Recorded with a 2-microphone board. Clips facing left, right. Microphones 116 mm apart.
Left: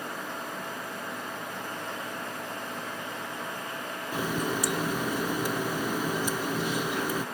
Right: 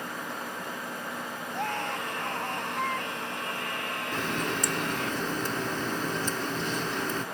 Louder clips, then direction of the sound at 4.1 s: Left 2 dB; 10° left (ahead or behind).